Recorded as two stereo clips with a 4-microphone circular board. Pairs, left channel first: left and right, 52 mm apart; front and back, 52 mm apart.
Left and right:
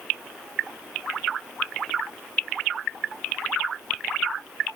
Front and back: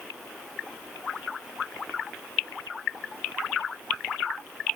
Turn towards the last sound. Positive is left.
No sound to turn to.